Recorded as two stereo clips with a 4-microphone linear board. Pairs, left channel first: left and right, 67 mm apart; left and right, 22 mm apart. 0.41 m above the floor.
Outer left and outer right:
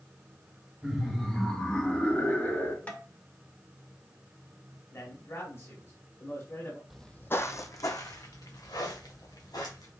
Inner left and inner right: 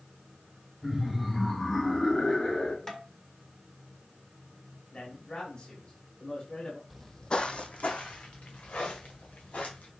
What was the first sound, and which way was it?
Laughter, 5° right (ahead or behind).